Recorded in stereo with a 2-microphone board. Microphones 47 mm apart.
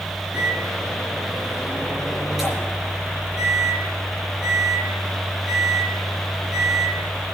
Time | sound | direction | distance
0.3 | a microwave | 10° right (ahead or behind) | 9 m